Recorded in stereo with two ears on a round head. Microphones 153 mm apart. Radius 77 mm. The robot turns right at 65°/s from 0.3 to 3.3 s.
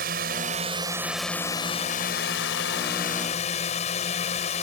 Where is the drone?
60° right; by 4.6 s 135° left.